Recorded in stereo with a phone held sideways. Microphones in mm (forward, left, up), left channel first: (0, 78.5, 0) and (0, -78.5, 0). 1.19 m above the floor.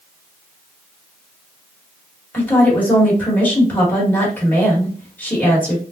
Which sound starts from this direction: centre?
A woman speaking, at 2.3 s.